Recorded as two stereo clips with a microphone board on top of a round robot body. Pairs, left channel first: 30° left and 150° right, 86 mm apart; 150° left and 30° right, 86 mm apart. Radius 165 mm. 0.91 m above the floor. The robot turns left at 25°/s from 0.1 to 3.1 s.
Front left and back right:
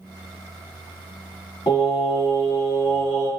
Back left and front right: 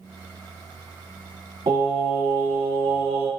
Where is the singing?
Straight ahead, 1.6 m; by 3.3 s 35° right, 1.6 m.